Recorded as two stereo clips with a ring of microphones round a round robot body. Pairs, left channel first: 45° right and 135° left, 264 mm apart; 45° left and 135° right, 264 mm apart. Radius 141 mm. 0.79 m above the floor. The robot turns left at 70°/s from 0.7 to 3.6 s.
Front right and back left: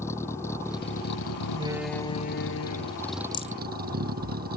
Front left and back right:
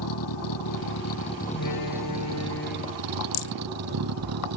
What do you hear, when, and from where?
0.0 s a vehicle: 35° left; by 4.6 s 165° right
1.5 s a door slam: 70° left; by 4.3 s 75° right
3.3 s a rattle: 30° left; by 3.5 s 15° left